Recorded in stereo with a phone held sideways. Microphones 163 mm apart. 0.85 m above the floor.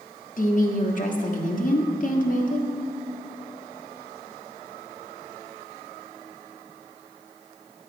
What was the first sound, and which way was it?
A woman speaking, 55° left (ahead or behind).